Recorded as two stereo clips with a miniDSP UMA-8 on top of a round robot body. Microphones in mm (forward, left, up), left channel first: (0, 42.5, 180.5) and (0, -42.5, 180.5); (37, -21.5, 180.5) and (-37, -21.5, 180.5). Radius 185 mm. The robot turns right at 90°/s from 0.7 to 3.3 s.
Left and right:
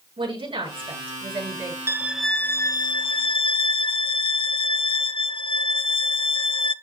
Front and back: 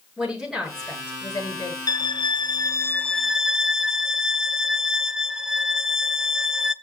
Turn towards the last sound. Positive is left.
turn(degrees=100)